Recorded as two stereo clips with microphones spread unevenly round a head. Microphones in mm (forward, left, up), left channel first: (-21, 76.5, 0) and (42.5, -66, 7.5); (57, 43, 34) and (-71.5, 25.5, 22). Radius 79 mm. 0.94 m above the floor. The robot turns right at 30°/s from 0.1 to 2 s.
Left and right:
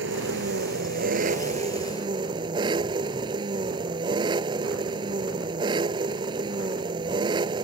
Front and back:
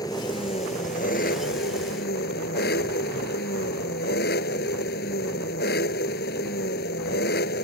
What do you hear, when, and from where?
0.0 s an engine running: 60° right; by 7.6 s 5° right